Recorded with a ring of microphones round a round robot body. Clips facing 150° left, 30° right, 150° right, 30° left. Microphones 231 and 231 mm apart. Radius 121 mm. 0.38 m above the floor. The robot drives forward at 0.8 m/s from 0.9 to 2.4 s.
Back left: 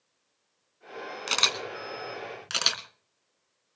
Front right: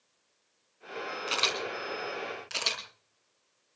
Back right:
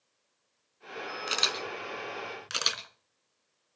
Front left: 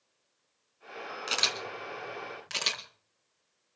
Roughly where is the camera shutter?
Behind left.